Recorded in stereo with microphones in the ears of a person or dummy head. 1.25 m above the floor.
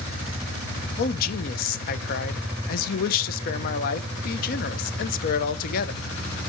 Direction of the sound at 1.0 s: 50° left (ahead or behind).